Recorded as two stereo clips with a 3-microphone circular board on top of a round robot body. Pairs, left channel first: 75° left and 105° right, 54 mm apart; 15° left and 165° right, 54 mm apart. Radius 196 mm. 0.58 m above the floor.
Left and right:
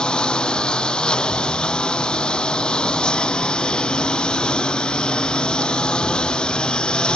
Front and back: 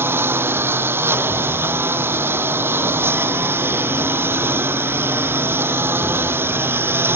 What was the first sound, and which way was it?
A lawn mower, 150° left.